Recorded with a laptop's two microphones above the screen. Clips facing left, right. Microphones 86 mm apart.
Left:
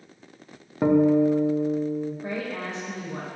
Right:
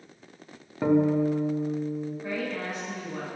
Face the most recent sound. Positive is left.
turn(degrees=30)  # may be behind; listen again after turning